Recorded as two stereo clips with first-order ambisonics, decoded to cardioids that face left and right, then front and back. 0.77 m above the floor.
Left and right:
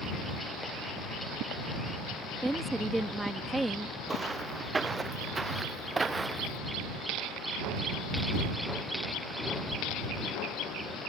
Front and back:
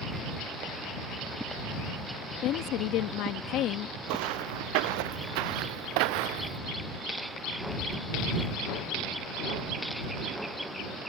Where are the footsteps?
170° right.